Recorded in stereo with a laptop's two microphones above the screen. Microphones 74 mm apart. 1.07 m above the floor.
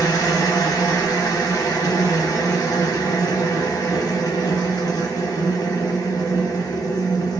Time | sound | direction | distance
0.0 | a machine running | 50° left (ahead or behind) | 1.0 m